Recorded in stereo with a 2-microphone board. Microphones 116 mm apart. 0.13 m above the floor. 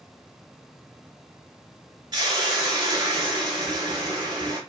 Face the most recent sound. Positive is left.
turn(degrees=-35)  # may be behind; listen again after turning